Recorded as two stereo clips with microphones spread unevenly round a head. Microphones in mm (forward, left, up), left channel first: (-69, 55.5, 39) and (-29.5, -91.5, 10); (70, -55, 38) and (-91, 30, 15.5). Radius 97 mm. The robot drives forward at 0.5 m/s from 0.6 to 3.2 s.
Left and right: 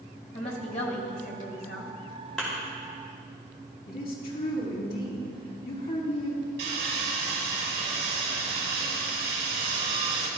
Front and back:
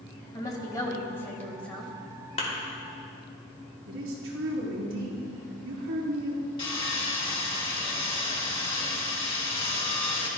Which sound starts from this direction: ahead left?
A woman speaking, at 0.3 s.